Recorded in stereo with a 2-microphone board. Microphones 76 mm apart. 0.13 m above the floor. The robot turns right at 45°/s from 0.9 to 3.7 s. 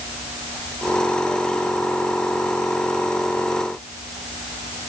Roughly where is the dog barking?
I don't hear a dog barking.